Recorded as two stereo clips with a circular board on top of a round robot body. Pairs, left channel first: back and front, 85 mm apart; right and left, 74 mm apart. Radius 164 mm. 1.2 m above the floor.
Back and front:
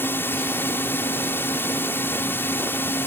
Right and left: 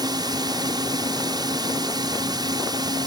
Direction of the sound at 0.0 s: 115° left.